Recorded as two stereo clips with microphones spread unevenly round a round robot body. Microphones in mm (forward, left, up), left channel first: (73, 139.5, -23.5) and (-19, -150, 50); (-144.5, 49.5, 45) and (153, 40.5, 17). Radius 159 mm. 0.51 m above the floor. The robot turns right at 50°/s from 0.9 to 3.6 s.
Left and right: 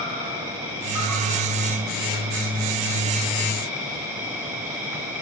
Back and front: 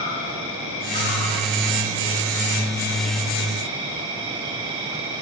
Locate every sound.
0.0 s an insect: 170° right, 3 m; by 5.2 s 35° right, 3 m